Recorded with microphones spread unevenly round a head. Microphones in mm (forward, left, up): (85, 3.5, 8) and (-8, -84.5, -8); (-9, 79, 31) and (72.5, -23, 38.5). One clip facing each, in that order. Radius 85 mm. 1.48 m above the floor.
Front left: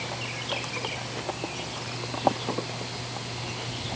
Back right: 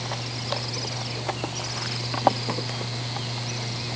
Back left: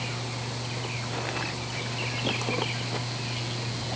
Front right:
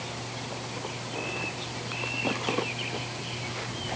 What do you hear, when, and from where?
Only background noise.